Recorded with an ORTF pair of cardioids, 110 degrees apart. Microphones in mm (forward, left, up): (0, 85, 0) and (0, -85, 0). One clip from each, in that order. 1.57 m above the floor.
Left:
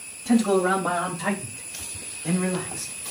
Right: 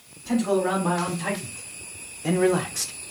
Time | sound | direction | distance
0.2 | a man speaking | 30° left | 1.8 m